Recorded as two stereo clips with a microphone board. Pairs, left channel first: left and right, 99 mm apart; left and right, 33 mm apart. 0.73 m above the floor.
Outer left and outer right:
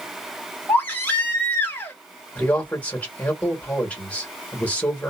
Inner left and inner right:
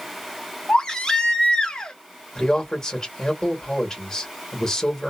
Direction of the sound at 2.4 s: 15° left (ahead or behind).